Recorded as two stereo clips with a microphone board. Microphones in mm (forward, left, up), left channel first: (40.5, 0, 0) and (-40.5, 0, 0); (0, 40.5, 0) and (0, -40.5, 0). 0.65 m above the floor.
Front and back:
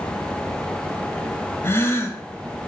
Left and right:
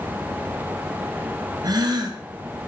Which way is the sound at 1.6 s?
60° right.